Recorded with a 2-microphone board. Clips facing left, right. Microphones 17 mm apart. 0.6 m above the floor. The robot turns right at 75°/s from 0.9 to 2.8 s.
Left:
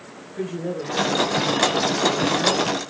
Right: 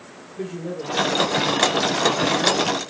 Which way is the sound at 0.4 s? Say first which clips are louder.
Left 2 dB; 95° left.